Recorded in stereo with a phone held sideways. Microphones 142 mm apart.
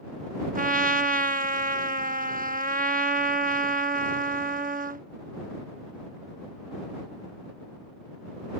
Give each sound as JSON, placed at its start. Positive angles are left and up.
{"t": 0.6, "sound": "a trumpet", "side_deg": -80}